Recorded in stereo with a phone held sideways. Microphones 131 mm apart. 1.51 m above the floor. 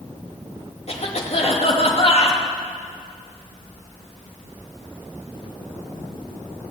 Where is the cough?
50° left (ahead or behind), 2.5 m.